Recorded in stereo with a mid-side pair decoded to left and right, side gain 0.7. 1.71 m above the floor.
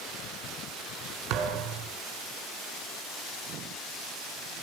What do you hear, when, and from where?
1.3 s a thud: 65° right, 4.5 m